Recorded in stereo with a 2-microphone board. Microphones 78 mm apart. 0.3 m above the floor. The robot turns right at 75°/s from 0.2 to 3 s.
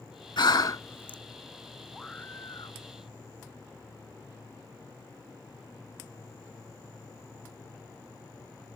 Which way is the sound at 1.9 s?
5° left.